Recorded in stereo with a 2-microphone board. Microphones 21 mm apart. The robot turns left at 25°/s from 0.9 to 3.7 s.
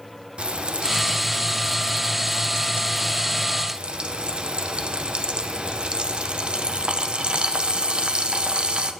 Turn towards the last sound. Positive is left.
turn(degrees=-125)